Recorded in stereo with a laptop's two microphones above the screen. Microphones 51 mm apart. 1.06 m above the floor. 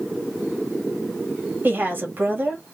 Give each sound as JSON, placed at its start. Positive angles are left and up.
{"t": 1.6, "sound": "a woman speaking", "side_deg": -45, "distance_m": 1.5}